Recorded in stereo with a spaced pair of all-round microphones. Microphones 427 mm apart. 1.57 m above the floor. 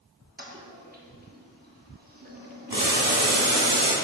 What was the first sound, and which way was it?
A toilet flushing, 20° right (ahead or behind).